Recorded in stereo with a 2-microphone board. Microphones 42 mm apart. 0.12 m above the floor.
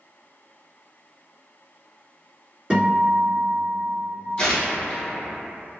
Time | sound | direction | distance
2.7 | a guitar | 25° right (ahead or behind) | 1.7 m
4.4 | tearing paper | 20° left (ahead or behind) | 1.4 m